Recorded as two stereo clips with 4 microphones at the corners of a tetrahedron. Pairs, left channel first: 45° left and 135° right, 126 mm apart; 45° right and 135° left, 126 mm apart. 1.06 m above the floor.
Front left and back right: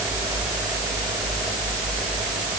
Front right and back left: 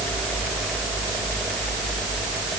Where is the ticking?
No ticking in this recording.